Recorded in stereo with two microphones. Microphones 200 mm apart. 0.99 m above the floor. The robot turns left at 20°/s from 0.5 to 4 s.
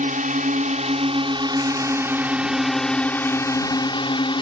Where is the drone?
135° right; by 4.4 s 155° left.